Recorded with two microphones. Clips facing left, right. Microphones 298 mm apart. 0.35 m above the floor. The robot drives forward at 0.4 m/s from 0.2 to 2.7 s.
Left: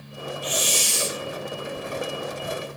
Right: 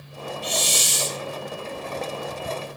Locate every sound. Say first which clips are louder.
0.4 s a hiss: even; 50° right (ahead or behind), 1.7 m; by 1.2 s 45° right (ahead or behind), 1.9 m